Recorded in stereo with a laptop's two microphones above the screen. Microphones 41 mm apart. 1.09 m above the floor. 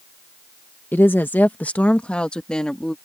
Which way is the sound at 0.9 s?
60° left (ahead or behind).